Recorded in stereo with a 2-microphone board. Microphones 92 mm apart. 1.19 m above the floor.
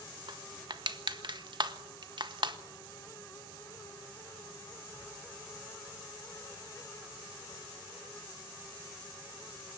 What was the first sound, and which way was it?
Crushing, 55° right (ahead or behind).